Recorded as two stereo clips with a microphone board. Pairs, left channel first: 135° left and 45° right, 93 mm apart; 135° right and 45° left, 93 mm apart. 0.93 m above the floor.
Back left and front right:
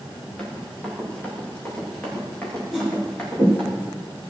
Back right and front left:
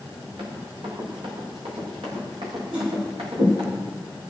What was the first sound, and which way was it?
Running footsteps, 60° left.